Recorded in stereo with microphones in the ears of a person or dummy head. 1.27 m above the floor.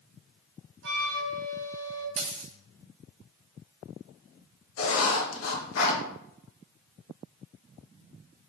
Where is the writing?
70° left (ahead or behind), 1.5 m.